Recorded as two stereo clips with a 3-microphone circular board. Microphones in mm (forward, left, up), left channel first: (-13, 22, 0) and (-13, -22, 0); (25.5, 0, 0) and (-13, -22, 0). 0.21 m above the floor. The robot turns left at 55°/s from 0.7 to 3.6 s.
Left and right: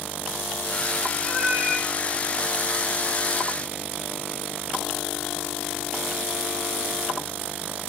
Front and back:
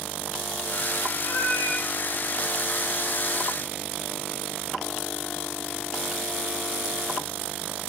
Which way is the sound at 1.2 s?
10° left.